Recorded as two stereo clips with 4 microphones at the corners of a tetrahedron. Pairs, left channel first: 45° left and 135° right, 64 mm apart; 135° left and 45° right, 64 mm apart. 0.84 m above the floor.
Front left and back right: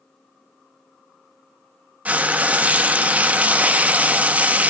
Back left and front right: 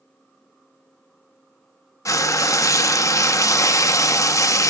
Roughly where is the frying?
Behind.